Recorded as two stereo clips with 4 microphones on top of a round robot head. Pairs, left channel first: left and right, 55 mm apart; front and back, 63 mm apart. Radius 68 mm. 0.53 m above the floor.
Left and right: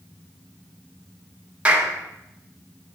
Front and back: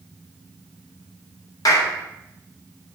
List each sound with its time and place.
1.6 s a clap: 20° right, 2.0 m